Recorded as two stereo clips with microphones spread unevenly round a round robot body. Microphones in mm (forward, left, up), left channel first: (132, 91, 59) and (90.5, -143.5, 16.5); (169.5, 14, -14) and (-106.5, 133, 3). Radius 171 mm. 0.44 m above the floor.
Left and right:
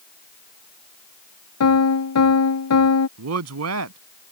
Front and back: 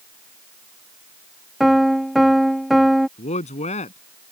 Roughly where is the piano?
Ahead left.